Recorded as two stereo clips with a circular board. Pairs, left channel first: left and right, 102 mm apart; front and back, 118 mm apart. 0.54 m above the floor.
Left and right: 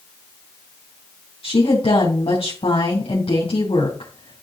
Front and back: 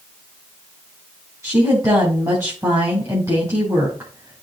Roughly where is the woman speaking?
Behind left.